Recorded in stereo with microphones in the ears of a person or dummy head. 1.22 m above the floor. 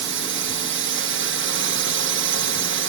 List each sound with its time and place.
0.0 s a drone: 65° right (ahead or behind)